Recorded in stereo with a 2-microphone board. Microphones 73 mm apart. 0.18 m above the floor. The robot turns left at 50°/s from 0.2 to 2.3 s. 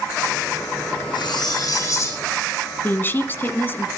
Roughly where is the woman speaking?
Left.